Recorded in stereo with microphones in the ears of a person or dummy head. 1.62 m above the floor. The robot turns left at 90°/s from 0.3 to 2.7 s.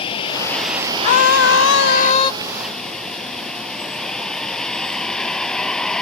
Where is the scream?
140° left; by 2.3 s 25° left.